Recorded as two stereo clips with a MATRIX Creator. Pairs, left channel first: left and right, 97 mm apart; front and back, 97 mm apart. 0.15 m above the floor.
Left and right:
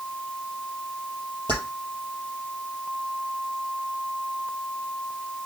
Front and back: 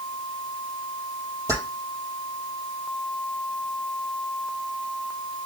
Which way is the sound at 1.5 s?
125° right.